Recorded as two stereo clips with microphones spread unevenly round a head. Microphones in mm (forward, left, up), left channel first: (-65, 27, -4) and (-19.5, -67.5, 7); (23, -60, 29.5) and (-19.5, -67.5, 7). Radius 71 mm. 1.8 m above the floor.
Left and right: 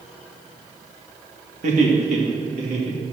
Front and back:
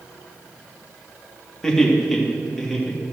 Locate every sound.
1.6 s laughter: 60° right, 1.9 m; by 3.0 s 75° right, 3 m